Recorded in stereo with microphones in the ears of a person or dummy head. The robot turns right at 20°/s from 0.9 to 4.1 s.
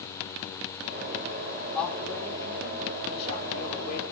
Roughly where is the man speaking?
Ahead.